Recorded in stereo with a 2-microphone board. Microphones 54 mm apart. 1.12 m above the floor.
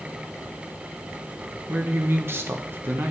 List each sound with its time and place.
1.7 s a man speaking: 50° right (ahead or behind), 1.1 m